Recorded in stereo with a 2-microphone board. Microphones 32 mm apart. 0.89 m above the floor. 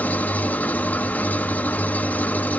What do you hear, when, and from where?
0.0 s an engine running: 60° left (ahead or behind), 1.0 m